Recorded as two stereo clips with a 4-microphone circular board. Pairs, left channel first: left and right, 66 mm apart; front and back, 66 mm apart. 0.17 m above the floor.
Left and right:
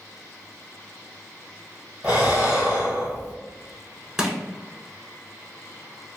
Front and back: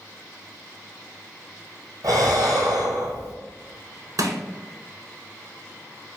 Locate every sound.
2.0 s breathing: 155° right, 1.2 m
4.2 s crushing: 170° right, 0.6 m